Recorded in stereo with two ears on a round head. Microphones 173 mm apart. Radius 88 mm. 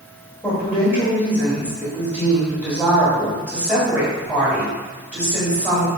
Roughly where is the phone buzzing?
I don't hear a phone buzzing.